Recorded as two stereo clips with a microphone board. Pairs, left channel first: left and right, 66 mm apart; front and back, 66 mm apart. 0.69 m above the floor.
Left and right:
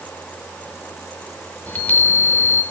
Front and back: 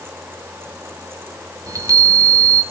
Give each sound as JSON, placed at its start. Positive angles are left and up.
{"t": 1.7, "sound": "a chime", "azimuth_deg": 155, "distance_m": 2.5}